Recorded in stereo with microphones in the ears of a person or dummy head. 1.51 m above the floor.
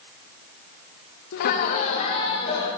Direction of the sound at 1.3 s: 60° left (ahead or behind).